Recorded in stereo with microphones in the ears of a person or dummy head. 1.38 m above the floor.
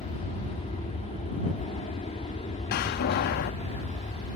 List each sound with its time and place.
0.0 s an aircraft: 30° left (ahead or behind)
2.7 s a door slam: 45° left (ahead or behind)